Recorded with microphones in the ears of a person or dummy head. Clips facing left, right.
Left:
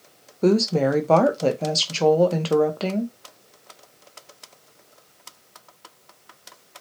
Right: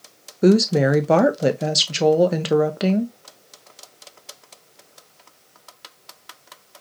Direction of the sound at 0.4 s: 15° right (ahead or behind).